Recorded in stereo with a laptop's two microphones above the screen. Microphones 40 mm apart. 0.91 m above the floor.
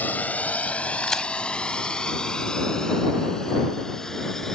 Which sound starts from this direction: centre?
A crack, at 1.0 s.